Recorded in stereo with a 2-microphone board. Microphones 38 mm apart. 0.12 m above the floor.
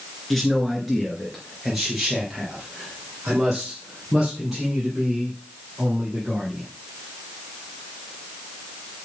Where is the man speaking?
Centre (ahead or behind), 1.8 m; by 6.7 s 15° right (ahead or behind), 5 m.